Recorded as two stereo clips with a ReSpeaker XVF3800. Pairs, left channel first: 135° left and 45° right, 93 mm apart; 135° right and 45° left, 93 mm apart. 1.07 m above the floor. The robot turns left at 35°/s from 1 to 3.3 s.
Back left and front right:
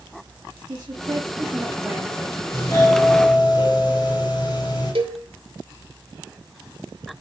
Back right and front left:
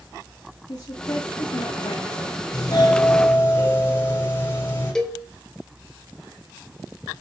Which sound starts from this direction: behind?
A doorbell, at 2.5 s.